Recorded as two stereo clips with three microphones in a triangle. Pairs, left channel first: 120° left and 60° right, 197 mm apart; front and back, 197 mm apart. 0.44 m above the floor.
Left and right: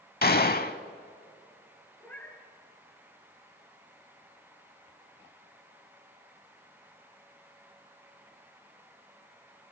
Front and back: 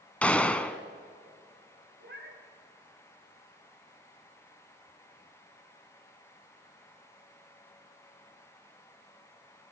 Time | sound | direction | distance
0.2 | a gunshot | 85° left | 0.6 m
2.0 | a cat meowing | 160° right | 2.5 m